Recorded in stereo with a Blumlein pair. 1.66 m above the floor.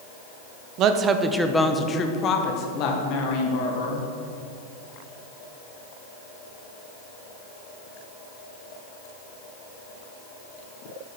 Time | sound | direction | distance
0.8 | a woman speaking | 40° right | 0.9 m